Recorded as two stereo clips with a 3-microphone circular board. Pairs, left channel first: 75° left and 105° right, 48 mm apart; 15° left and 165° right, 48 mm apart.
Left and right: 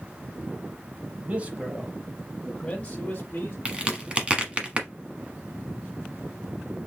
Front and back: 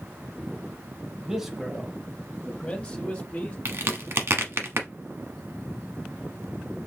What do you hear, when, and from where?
1.2 s a man speaking: 95° right, 1.1 m; by 3.5 s 50° left, 1.2 m
3.6 s a crack: 170° right, 1.0 m